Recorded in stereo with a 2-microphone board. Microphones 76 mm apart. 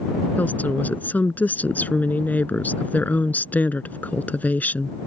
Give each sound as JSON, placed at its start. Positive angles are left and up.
{"t": 0.4, "sound": "a woman speaking", "side_deg": 25}